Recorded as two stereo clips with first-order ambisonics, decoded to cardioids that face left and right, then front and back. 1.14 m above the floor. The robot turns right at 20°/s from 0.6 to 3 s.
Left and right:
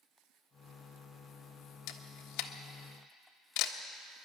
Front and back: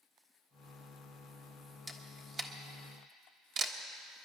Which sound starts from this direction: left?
A camera shutter, at 1.9 s.